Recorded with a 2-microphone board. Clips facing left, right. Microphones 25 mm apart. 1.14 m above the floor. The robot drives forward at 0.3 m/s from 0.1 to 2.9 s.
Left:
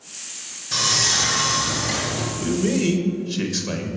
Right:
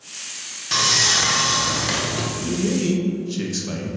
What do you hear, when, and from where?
0.7 s sawing: 50° right (ahead or behind), 0.9 m
2.4 s a man speaking: 20° left (ahead or behind), 0.7 m; by 3.9 s 15° left (ahead or behind), 0.9 m